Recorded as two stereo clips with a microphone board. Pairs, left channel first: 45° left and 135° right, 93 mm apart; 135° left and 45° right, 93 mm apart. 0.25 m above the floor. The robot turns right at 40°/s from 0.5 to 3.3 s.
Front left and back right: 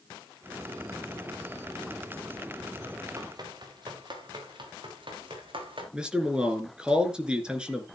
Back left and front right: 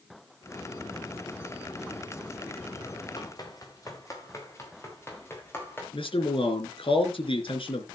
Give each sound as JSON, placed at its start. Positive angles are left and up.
{"t": 3.2, "sound": "running footsteps", "azimuth_deg": 175, "distance_m": 4.5}
{"t": 5.9, "sound": "a man speaking", "azimuth_deg": 145, "distance_m": 3.5}